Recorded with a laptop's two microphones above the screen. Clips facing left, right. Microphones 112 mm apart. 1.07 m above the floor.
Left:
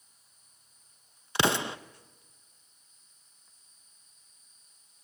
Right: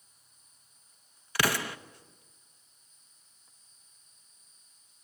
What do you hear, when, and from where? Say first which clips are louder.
1.4 s an explosion: left 3 dB; 25° left (ahead or behind), 0.7 m